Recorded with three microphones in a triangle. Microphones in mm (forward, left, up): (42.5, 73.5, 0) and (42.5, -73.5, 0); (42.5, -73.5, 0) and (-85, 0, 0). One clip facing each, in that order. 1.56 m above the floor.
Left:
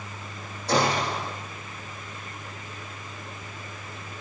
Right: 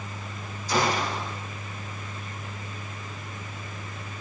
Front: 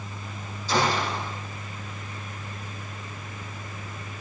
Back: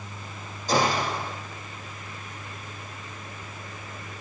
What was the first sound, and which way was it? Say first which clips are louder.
A gunshot: left 2 dB, back 1 dB; 105° left.